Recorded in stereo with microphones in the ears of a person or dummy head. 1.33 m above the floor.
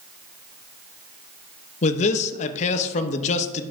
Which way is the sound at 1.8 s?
40° left (ahead or behind).